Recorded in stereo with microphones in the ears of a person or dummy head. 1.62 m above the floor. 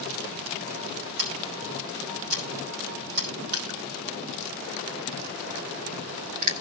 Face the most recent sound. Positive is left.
turn(degrees=-25)  # may be behind; listen again after turning